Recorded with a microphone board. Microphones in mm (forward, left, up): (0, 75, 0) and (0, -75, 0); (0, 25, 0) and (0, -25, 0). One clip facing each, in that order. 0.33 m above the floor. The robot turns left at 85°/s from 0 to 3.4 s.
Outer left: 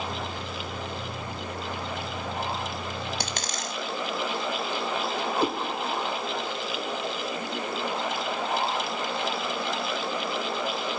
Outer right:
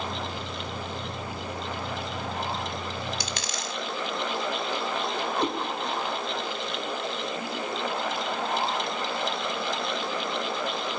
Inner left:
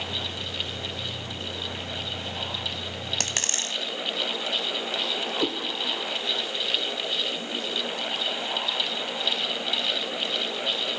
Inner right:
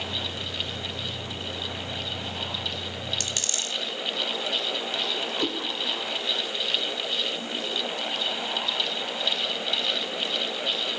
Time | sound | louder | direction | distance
3.2 | a dropped coin | outer left 1 dB, inner left 2 dB | 60° left (ahead or behind) | 1.1 m
5.4 | a cat meowing | outer left 2 dB, inner left 2 dB | 10° left (ahead or behind) | 2 m